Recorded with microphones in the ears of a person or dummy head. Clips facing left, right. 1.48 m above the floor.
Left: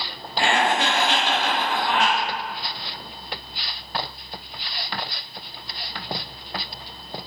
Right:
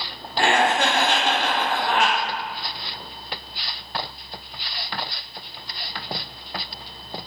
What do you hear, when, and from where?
0.4 s laughter: 40° right (ahead or behind), 0.5 m